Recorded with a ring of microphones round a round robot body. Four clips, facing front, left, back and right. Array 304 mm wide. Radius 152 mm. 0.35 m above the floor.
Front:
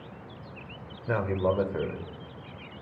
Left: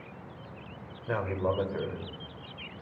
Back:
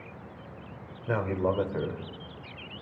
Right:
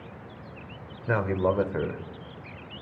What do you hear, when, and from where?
1.1 s a man speaking: 85° right, 1.1 m